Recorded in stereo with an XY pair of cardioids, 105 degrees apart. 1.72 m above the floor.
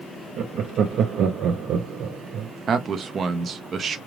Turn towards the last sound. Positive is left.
turn(degrees=-50)